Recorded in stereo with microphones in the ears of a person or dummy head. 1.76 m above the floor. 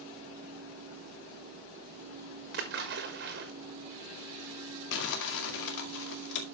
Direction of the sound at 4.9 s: 55° left (ahead or behind).